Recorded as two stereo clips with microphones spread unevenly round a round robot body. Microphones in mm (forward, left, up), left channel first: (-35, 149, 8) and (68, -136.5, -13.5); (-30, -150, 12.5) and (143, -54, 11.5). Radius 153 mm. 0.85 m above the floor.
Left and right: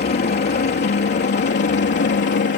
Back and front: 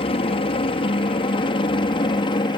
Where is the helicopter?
160° left; by 2.6 s 150° left.